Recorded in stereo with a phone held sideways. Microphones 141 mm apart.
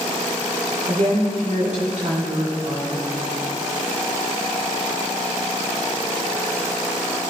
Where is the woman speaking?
60° right (ahead or behind), 3.5 m.